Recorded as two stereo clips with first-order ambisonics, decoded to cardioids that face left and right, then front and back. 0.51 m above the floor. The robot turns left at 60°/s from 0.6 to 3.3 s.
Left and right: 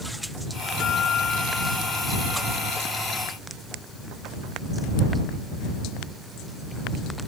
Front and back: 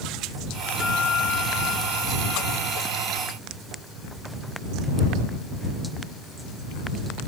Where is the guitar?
60° left; by 2.8 s 60° right.